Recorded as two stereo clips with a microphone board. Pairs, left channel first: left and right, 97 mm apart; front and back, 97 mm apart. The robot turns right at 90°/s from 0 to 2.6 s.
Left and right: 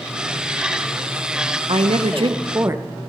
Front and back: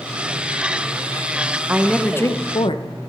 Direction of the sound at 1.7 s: 110° right.